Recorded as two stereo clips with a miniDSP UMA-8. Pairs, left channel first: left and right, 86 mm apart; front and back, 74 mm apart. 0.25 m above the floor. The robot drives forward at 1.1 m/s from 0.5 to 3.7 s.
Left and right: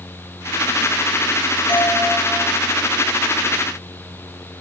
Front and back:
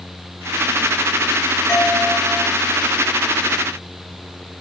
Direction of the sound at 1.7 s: 60° left.